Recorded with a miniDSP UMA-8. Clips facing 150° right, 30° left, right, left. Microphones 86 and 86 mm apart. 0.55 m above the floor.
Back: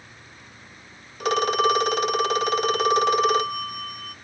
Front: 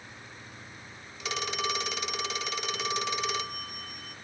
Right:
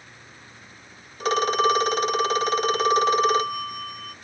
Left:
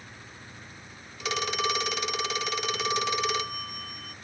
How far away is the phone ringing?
About 0.5 m.